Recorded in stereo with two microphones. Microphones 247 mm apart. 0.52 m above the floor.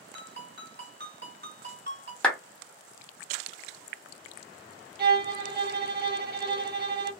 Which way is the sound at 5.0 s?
40° right (ahead or behind).